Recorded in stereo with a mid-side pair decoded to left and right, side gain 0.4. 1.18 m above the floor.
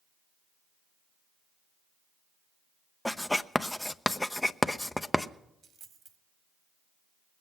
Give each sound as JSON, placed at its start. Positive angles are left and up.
{"t": 3.0, "sound": "writing", "azimuth_deg": 10, "distance_m": 0.6}
{"t": 5.6, "sound": "a dropped coin", "azimuth_deg": -65, "distance_m": 1.4}